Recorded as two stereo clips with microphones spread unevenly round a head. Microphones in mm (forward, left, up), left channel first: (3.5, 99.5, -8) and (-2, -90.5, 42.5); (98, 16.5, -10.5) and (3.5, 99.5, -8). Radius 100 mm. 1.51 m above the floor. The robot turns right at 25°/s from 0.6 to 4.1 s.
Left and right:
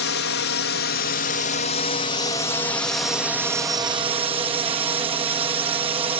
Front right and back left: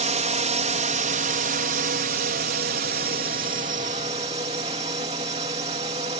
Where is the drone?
115° left; by 6.2 s 160° right.